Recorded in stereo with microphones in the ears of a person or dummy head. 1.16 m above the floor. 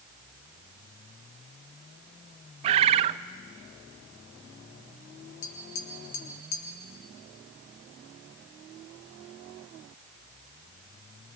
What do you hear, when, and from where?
2.6 s a bird: 35° right (ahead or behind), 0.5 m
5.4 s tapping: 80° left, 3.5 m